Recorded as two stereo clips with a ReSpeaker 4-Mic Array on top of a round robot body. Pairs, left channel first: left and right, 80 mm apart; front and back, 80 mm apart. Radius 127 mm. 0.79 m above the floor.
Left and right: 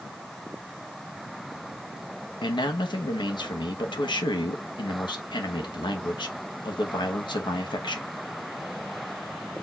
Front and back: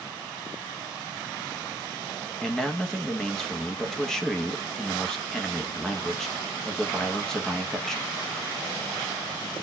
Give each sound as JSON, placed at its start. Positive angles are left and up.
{"t": 2.4, "sound": "a man speaking", "azimuth_deg": 85, "distance_m": 1.3}